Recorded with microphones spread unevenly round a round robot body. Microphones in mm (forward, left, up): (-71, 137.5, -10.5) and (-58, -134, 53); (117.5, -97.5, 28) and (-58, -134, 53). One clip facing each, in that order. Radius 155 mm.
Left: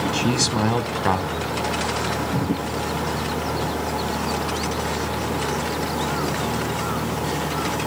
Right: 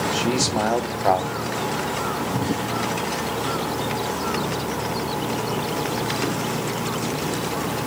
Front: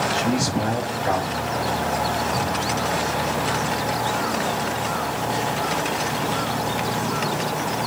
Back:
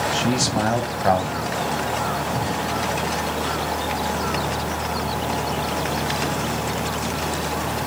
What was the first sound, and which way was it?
A man speaking, 150° left.